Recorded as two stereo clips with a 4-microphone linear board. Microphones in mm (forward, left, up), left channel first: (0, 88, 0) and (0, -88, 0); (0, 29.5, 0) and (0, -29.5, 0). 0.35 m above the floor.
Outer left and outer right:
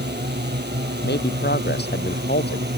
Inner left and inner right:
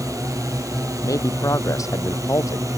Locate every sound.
0.0 s a drone: 70° right (ahead or behind); by 2.8 s 65° right (ahead or behind)
1.0 s a man speaking: 65° left (ahead or behind)